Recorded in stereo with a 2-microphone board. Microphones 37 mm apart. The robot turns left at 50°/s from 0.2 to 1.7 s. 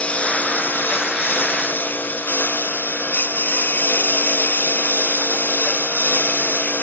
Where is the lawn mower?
40° left (ahead or behind); by 6.8 s 45° left (ahead or behind).